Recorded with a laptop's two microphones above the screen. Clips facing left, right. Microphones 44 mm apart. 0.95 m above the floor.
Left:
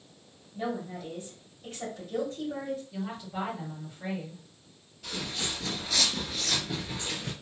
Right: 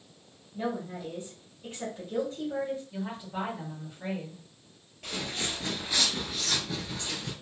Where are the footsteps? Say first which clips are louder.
Right 1 dB; 45° right (ahead or behind), 1.2 m; by 7.3 s 30° left (ahead or behind), 1.2 m.